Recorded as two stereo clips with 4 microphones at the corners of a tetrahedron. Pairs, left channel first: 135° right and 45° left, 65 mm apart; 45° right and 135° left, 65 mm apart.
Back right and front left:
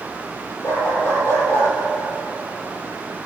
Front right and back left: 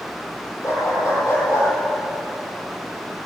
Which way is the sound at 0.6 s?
85° right.